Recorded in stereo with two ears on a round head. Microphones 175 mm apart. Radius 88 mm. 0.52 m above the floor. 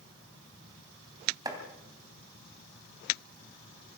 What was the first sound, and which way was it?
Chopping, 20° right (ahead or behind).